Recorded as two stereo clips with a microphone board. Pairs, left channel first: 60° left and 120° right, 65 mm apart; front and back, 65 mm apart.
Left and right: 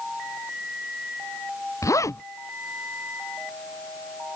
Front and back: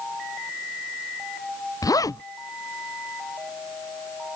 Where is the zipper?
25° left.